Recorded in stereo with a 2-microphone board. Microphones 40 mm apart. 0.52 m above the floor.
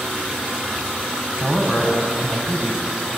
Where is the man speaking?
50° right (ahead or behind), 4.5 m; by 2.9 s 55° right (ahead or behind), 4 m.